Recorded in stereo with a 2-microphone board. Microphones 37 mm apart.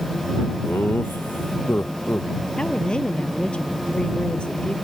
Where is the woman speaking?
30° left (ahead or behind).